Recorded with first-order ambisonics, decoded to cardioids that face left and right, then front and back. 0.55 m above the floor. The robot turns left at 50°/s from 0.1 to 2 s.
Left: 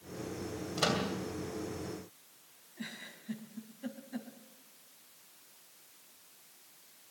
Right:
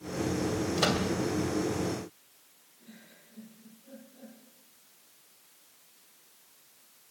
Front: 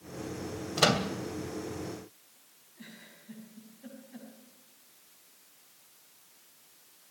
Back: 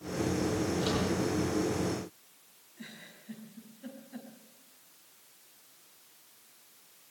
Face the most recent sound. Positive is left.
turn(degrees=100)